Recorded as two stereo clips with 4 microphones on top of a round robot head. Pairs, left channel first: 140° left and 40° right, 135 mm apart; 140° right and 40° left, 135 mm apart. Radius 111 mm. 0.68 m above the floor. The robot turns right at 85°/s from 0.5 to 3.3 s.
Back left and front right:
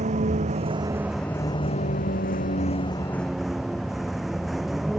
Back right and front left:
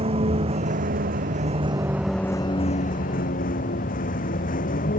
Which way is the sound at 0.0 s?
5° right.